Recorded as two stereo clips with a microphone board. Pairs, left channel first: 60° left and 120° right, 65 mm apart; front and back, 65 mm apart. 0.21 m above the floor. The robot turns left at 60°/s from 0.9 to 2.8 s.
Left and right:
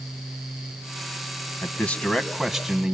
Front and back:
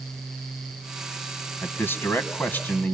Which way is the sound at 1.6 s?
25° left.